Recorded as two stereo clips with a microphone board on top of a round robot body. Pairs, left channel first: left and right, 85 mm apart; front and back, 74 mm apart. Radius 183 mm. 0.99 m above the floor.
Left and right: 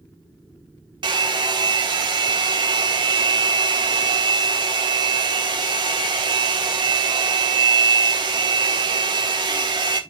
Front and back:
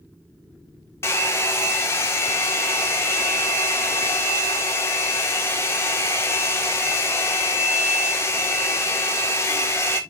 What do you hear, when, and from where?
1.0 s a hair dryer: 55° right, 1.4 m